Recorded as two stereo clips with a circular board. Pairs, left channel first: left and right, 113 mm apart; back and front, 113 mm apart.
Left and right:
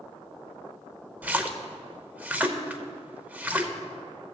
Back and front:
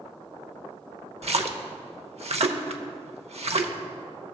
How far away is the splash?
About 0.7 m.